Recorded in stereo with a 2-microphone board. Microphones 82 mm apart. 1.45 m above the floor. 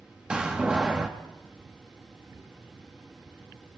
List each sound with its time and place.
0.3 s a door slam: 10° right (ahead or behind), 1.6 m